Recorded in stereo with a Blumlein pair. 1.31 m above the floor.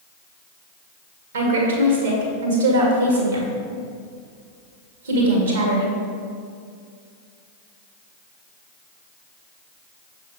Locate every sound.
1.3 s a woman speaking: 60° right, 2.0 m